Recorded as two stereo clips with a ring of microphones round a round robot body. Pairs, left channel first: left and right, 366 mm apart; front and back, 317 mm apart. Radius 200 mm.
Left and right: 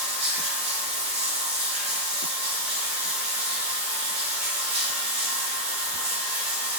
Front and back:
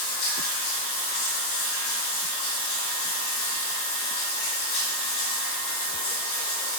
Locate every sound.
0.0 s running water: 15° right, 1.9 m